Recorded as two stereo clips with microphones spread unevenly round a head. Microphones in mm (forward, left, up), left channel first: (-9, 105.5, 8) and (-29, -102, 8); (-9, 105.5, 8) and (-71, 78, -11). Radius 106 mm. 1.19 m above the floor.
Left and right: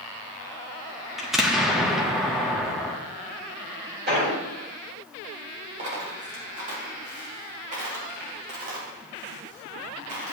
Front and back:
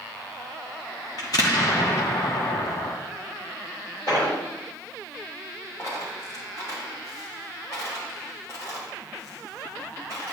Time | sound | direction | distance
1.2 | an explosion | 10° right | 1.1 m
4.1 | an explosion | 50° right | 4 m
5.8 | a dropped coin | 40° right | 3 m